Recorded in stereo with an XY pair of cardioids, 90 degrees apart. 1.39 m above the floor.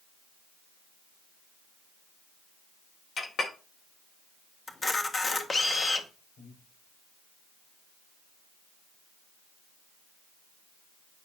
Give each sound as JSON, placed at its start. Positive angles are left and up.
{"t": 3.2, "sound": "a clink", "azimuth_deg": 50, "distance_m": 1.5}
{"t": 4.7, "sound": "a camera shutter", "azimuth_deg": 35, "distance_m": 1.7}
{"t": 6.4, "sound": "breathing", "azimuth_deg": 70, "distance_m": 6.0}